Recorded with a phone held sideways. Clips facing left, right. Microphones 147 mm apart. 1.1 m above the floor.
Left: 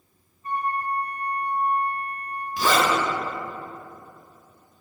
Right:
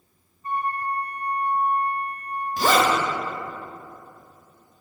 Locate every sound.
0.4 s a flute: 30° right (ahead or behind), 1.7 m
2.6 s a zipper: 45° right (ahead or behind), 1.1 m